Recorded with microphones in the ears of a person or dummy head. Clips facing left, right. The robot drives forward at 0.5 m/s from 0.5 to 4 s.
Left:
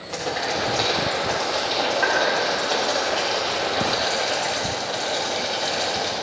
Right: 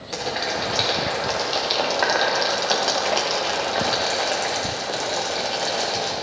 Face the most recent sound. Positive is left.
turn(degrees=-55)  # may be behind; listen again after turning